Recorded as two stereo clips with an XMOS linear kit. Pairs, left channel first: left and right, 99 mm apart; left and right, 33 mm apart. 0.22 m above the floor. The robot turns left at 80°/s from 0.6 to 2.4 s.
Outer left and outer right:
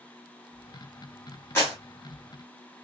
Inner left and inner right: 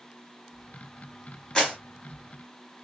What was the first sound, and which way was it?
A clap, 25° left (ahead or behind).